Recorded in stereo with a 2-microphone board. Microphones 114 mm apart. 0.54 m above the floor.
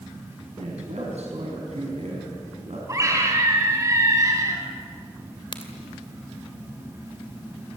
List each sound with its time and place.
0.6 s a man speaking: 70° right (ahead or behind), 4 m
2.9 s a scream: 30° right (ahead or behind), 4.5 m
5.5 s a crack: 45° left (ahead or behind), 2.5 m